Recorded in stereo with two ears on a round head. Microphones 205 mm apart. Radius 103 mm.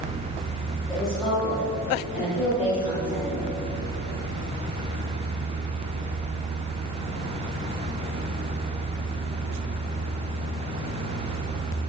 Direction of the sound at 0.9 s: Centre (ahead or behind).